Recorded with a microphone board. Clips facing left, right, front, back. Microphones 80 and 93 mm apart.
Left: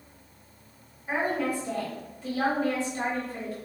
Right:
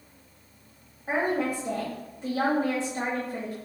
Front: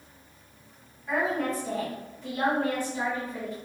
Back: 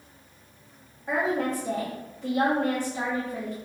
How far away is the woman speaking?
About 1.1 m.